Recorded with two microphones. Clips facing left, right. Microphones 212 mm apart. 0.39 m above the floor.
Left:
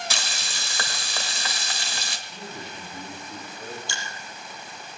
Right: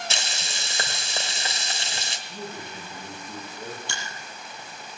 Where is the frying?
25° right (ahead or behind), 1.6 m.